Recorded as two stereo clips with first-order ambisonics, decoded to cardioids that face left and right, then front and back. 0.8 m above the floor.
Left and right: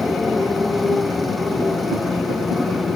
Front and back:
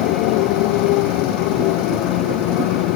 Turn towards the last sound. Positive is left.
turn(degrees=5)